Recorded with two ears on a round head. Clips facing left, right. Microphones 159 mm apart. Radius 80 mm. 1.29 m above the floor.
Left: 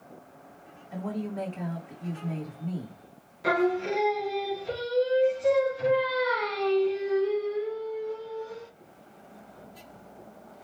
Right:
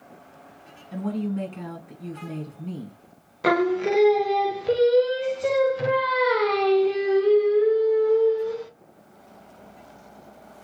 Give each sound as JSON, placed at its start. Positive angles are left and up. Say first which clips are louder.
{"t": 0.9, "sound": "a woman speaking", "louder": "right 5 dB", "side_deg": -55, "distance_m": 2.0}
{"t": 3.4, "sound": "singing", "louder": "right 4 dB", "side_deg": -70, "distance_m": 0.7}